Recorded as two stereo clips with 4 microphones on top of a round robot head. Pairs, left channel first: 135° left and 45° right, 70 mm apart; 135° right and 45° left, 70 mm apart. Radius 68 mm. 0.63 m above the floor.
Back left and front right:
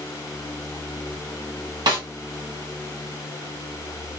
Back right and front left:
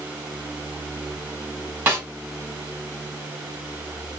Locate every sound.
1.9 s a snare drum: 25° right, 1.3 m